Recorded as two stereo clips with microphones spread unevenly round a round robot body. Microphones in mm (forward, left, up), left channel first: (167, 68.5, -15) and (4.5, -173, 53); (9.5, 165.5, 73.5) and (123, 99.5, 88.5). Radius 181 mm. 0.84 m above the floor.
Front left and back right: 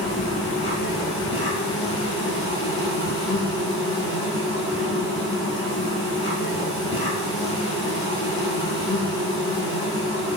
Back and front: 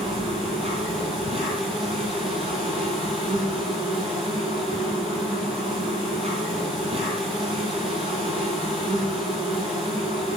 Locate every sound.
0.0 s an insect: 5° left, 3.5 m